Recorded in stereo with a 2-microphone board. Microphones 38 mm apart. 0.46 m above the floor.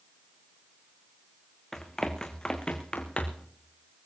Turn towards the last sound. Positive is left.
turn(degrees=35)  # may be behind; listen again after turning